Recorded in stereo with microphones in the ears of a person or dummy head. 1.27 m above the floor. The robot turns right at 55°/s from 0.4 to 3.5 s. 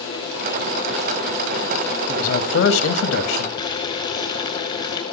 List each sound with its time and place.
2.1 s a man speaking: 45° left, 1.8 m; by 3.5 s 120° left, 1.8 m
3.6 s boiling: 25° left (ahead or behind), 3.5 m